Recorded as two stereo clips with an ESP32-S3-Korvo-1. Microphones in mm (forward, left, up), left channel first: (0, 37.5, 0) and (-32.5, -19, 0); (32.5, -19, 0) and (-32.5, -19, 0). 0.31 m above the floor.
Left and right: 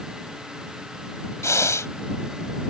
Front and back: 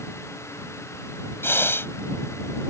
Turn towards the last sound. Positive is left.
turn(degrees=35)